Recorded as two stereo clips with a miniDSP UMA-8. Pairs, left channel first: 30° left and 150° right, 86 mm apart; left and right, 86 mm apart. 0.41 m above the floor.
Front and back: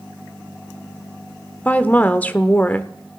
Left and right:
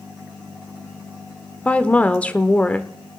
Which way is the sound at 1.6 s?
55° left.